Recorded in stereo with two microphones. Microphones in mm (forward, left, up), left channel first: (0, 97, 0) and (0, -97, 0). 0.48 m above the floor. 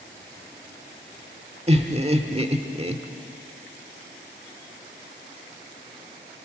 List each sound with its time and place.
1.7 s laughter: 30° right (ahead or behind), 1.1 m